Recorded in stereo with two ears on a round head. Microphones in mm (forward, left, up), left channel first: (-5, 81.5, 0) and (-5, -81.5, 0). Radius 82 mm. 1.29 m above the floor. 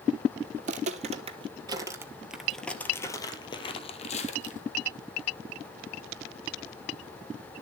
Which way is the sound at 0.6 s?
45° right (ahead or behind).